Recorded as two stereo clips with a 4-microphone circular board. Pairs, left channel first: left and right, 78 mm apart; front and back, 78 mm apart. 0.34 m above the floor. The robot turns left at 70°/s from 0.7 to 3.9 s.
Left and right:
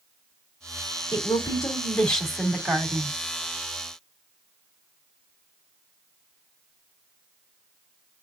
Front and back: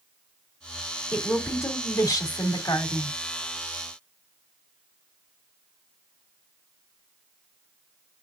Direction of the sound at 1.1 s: 80° left.